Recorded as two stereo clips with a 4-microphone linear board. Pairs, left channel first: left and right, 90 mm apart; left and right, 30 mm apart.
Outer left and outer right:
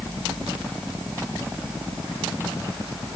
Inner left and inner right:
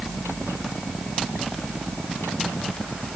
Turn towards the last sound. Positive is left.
No sound to turn to.